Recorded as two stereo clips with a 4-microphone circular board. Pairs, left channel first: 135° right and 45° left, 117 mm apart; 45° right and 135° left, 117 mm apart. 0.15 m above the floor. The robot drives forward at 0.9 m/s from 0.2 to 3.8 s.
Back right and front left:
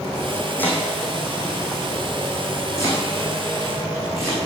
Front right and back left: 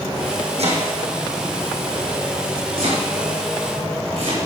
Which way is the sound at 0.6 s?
150° left.